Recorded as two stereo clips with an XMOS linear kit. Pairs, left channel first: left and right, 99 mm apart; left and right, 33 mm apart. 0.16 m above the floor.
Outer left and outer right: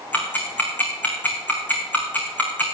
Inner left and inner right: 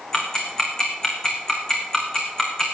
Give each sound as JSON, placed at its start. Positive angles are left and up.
{"t": 0.1, "sound": "ticking", "side_deg": 15, "distance_m": 3.5}